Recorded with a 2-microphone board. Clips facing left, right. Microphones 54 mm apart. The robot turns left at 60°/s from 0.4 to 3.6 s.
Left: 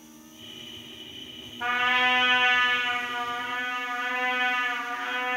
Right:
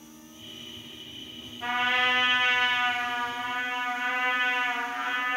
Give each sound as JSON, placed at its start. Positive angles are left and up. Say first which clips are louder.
{"t": 1.6, "sound": "a trumpet", "louder": "left 2 dB", "azimuth_deg": 100, "distance_m": 0.6}